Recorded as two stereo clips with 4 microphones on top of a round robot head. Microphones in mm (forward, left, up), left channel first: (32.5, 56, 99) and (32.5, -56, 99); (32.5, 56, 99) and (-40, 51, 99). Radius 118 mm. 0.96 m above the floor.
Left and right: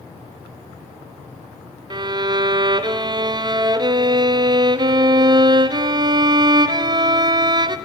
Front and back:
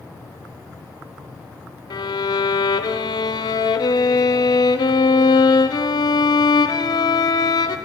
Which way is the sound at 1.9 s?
35° right.